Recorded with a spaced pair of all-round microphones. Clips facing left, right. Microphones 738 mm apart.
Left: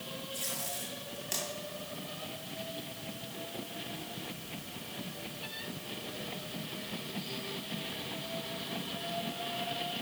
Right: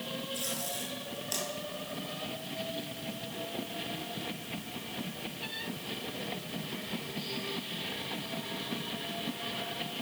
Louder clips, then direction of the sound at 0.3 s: Right 4 dB; 50° left (ahead or behind).